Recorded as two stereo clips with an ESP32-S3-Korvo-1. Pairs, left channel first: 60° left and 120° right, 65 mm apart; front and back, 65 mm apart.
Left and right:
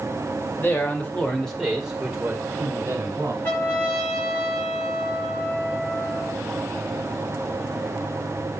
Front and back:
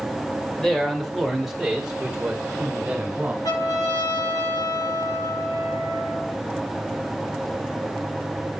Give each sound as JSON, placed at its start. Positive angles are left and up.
{"t": 0.6, "sound": "a man speaking", "azimuth_deg": 80, "distance_m": 1.4}
{"t": 3.4, "sound": "a trumpet", "azimuth_deg": 0, "distance_m": 6.0}